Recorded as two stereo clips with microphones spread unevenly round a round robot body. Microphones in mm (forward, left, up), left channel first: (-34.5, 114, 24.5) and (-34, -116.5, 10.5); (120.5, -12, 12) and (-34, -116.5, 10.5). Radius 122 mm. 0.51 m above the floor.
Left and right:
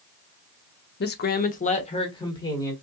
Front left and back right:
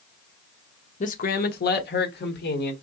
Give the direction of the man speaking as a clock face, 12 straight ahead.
10 o'clock.